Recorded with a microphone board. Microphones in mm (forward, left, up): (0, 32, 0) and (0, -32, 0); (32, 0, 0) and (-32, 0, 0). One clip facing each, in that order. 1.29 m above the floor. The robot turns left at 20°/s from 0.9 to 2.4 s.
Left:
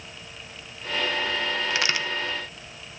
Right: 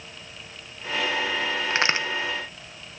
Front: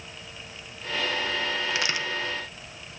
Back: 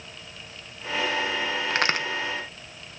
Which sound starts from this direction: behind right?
A crack, at 1.7 s.